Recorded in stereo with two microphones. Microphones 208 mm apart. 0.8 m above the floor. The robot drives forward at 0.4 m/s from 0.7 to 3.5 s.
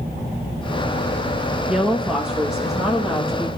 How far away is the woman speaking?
About 0.7 m.